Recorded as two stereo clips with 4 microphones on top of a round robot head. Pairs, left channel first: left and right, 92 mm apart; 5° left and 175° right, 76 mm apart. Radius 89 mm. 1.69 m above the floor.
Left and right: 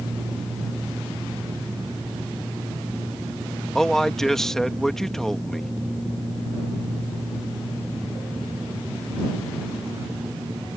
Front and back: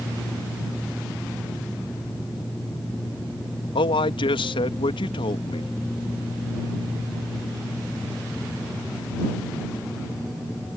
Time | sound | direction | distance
3.8 | a man speaking | 5° left | ?